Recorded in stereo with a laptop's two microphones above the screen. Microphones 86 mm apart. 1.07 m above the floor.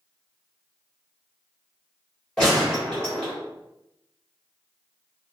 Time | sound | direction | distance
2.4 | a gunshot | 10° left (ahead or behind) | 1.2 m